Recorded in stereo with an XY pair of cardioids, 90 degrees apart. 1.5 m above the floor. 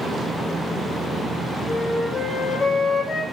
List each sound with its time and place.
1.7 s a flute: 55° left, 1.4 m